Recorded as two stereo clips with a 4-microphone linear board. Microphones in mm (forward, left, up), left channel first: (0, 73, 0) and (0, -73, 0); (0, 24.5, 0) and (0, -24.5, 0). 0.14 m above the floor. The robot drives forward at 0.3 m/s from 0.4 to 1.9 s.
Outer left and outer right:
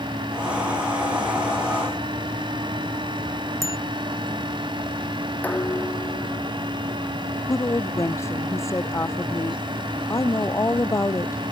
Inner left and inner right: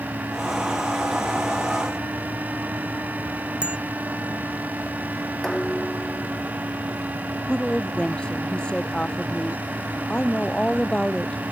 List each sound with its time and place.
3.6 s a bicycle bell: 20° right (ahead or behind)
5.4 s dishes clattering: 10° left (ahead or behind)
7.5 s a woman speaking: 20° left (ahead or behind)